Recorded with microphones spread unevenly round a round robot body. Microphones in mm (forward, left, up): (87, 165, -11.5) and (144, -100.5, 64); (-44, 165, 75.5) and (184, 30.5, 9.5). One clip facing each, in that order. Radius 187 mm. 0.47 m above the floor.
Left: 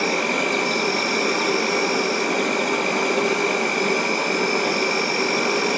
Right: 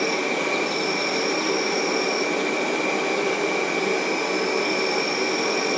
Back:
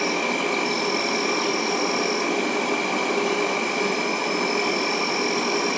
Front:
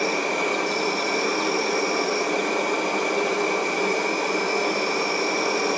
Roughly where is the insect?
Left.